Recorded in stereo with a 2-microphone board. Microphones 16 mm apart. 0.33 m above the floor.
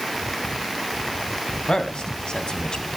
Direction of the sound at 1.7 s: 65° left (ahead or behind).